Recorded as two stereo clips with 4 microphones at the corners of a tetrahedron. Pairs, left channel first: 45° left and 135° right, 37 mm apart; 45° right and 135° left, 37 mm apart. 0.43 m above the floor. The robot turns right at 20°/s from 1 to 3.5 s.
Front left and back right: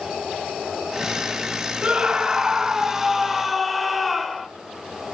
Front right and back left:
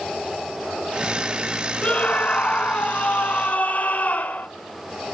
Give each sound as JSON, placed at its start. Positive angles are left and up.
{"t": 1.8, "sound": "a scream", "azimuth_deg": -80, "distance_m": 1.5}